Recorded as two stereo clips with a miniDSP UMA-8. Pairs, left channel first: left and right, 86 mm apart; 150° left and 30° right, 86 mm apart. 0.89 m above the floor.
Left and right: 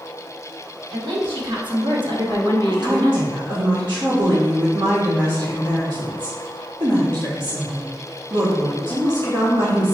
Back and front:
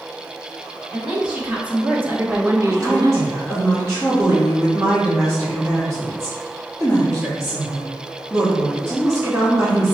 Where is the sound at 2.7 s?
115° right, 1.7 m.